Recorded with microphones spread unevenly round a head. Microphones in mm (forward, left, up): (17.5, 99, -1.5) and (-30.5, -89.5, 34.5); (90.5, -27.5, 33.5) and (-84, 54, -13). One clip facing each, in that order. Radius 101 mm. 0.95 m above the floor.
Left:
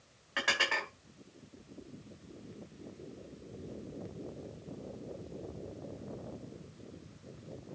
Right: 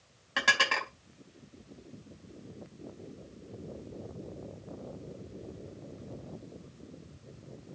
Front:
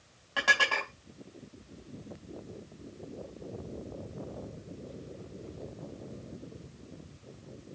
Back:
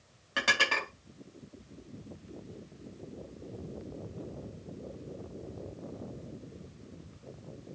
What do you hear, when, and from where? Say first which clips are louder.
0.4 s dishes clattering: right 2 dB, even; 140° right, 4 m